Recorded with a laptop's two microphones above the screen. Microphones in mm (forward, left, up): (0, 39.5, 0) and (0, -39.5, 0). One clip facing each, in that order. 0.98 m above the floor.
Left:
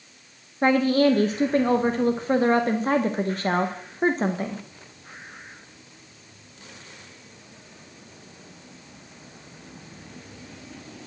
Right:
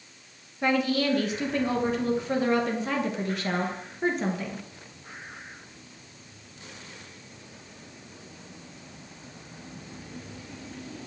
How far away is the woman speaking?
About 0.7 m.